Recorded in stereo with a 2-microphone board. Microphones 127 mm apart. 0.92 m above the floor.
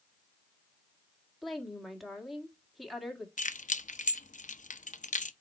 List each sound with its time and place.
1.4 s a woman speaking: centre (ahead or behind), 1.8 m
3.4 s keys jangling: 70° left (ahead or behind), 0.6 m